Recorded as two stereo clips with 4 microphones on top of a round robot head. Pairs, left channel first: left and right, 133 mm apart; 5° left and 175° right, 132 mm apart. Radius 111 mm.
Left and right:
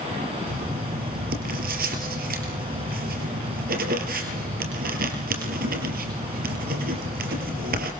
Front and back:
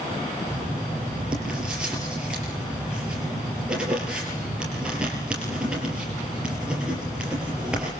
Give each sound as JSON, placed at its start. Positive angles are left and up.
{"t": 0.5, "sound": "writing", "azimuth_deg": -90, "distance_m": 4.0}